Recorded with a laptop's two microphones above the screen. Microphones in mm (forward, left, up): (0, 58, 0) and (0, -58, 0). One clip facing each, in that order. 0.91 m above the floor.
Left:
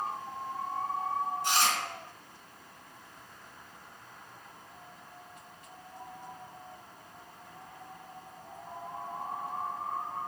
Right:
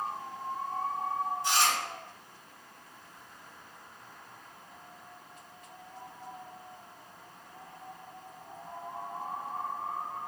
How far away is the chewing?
About 1.6 m.